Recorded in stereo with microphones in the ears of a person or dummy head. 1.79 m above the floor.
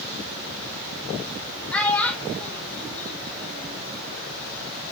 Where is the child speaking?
10° left (ahead or behind), 1.8 m.